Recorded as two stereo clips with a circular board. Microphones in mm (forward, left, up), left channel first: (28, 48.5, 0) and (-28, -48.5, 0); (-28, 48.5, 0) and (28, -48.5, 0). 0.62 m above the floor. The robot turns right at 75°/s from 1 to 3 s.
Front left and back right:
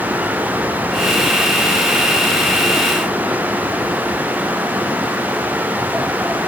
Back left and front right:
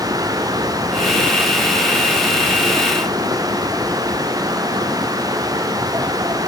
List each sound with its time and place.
Only background noise.